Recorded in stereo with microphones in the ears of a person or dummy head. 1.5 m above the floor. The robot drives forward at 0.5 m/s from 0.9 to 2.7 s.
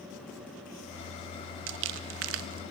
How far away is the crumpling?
About 1.7 m.